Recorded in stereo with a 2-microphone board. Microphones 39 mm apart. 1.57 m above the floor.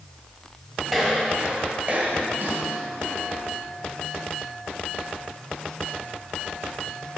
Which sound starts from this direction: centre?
Footsteps, at 0.9 s.